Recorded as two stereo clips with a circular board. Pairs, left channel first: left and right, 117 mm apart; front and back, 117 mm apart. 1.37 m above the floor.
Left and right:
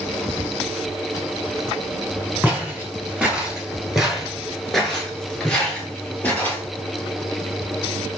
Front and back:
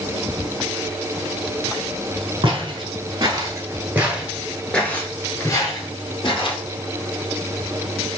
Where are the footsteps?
165° right, 1.9 m; by 6.6 s 15° left, 2.0 m.